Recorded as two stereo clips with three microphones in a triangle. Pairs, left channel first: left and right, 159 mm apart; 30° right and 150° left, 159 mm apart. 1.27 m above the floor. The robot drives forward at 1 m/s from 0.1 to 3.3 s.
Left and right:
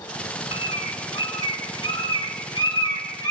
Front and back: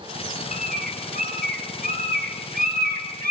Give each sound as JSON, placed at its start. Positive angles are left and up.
{"t": 0.5, "sound": "a bird", "azimuth_deg": 140, "distance_m": 5.0}